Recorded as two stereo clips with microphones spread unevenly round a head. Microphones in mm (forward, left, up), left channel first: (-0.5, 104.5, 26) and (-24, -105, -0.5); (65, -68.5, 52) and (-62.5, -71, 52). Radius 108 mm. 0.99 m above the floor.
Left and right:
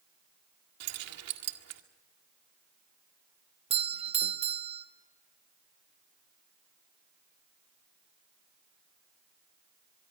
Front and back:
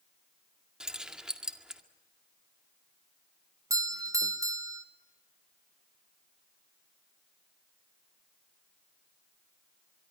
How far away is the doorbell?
About 1.5 m.